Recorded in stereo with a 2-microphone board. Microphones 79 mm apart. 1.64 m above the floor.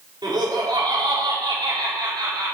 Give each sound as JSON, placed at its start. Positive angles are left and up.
{"t": 0.2, "sound": "laughter", "side_deg": -65, "distance_m": 4.0}